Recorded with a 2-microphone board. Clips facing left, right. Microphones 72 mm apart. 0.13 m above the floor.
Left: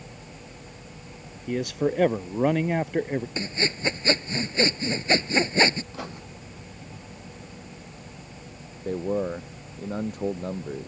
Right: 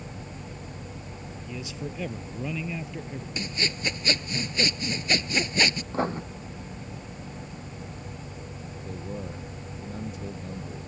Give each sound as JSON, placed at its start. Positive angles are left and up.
{"t": 1.5, "sound": "a man speaking", "side_deg": 65}
{"t": 3.4, "sound": "sawing", "side_deg": 30}
{"t": 5.9, "sound": "writing", "side_deg": -35}
{"t": 8.8, "sound": "a man speaking", "side_deg": 50}